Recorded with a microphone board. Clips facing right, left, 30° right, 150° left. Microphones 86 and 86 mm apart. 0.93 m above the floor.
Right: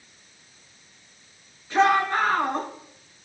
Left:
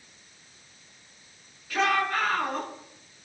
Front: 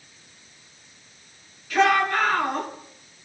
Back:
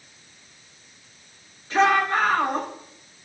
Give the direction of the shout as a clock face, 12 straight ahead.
5 o'clock.